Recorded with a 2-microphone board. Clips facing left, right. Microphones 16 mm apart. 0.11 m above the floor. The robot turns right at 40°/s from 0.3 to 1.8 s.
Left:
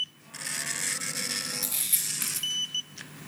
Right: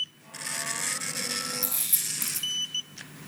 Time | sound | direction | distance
1.6 | a camera shutter | 20° left (ahead or behind) | 4 m